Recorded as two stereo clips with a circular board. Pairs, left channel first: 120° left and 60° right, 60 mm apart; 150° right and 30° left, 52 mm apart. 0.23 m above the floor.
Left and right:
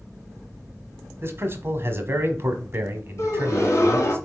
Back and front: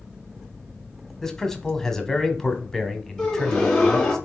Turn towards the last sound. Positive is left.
turn(degrees=140)